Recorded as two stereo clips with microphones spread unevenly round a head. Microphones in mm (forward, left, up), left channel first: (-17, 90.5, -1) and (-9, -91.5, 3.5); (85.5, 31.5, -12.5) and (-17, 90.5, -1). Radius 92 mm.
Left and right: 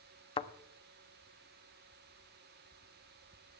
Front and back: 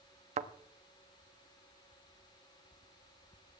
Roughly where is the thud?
Behind left.